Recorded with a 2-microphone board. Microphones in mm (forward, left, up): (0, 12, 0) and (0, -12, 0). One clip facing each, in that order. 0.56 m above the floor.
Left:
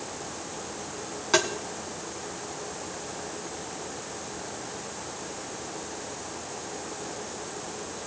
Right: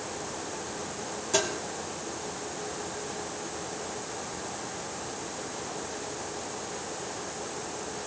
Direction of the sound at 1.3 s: 55° left (ahead or behind).